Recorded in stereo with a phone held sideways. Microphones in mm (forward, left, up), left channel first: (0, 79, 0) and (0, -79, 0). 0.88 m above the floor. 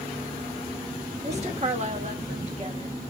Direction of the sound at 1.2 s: 45° right (ahead or behind).